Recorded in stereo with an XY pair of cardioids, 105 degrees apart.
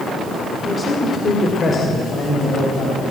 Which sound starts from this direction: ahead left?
A man speaking, at 0.7 s.